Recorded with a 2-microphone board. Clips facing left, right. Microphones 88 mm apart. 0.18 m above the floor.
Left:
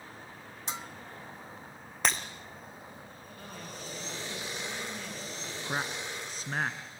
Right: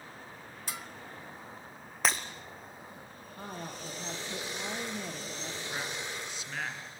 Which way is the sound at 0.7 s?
25° left (ahead or behind).